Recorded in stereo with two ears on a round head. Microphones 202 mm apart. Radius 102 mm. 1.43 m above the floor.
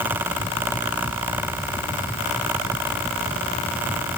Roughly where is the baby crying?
No baby crying in this recording.